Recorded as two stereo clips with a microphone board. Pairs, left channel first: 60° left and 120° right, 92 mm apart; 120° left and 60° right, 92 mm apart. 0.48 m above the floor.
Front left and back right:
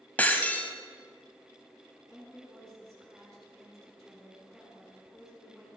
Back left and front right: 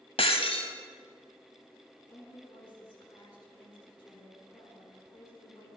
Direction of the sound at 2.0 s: 150° left.